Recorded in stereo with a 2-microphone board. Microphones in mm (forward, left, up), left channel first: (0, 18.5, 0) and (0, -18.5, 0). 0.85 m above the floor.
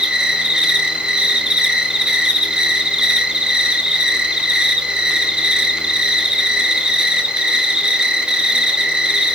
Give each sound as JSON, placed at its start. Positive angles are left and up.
{"t": 0.0, "sound": "an insect", "side_deg": -20, "distance_m": 2.0}